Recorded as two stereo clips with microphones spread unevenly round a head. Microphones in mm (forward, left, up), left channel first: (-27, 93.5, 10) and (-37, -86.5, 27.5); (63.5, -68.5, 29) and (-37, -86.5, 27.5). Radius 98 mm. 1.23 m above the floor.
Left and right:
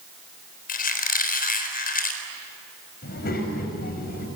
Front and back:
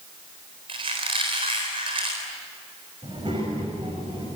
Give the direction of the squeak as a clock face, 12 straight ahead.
8 o'clock.